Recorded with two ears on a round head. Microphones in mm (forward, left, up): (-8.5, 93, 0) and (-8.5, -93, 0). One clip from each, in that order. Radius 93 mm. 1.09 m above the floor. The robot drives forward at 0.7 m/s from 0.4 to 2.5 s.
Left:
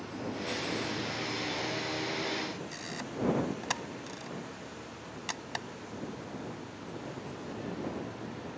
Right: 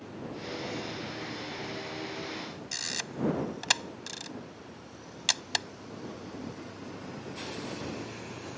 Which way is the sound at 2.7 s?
85° right.